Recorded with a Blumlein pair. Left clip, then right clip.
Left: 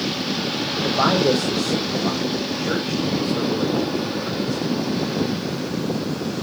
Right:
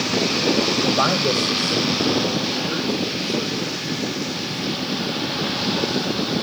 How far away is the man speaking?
About 1.2 m.